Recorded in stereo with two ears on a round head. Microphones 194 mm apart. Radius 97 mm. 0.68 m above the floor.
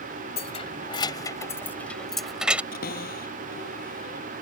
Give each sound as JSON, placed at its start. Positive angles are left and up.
{"t": 0.4, "sound": "keys jangling", "side_deg": 30}
{"t": 2.7, "sound": "a cupboard door", "side_deg": 45}